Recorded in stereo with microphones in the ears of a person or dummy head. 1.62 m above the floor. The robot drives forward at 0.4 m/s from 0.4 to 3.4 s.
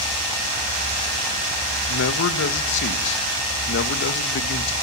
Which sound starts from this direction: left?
A man speaking, at 1.9 s.